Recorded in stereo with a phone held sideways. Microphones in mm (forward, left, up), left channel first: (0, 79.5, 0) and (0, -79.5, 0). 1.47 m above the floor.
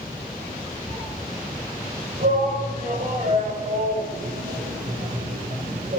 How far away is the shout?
About 7.5 m.